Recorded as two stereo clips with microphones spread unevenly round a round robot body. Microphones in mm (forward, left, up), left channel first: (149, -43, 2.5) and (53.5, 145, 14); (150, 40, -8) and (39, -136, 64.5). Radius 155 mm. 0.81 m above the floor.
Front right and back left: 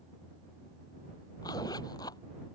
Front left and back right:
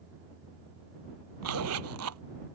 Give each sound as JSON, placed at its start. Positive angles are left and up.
{"t": 1.4, "sound": "a zipper", "azimuth_deg": -140}